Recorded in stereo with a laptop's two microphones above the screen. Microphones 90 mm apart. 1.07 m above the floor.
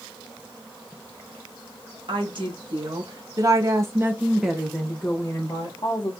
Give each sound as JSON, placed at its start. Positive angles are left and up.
{"t": 2.1, "sound": "a woman speaking", "side_deg": -60, "distance_m": 1.6}